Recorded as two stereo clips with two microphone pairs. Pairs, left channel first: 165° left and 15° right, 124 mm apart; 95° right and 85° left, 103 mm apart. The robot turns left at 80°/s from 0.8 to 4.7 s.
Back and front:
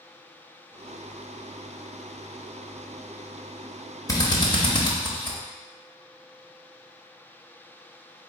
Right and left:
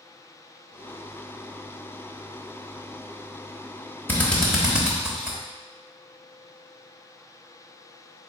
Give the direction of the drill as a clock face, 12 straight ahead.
5 o'clock.